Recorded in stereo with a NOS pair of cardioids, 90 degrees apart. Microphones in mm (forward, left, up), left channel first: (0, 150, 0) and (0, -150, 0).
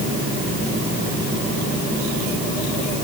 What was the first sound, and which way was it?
Only background noise.